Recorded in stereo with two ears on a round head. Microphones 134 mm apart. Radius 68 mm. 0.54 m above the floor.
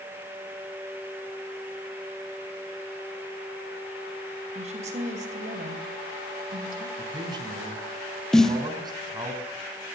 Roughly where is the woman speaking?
Right.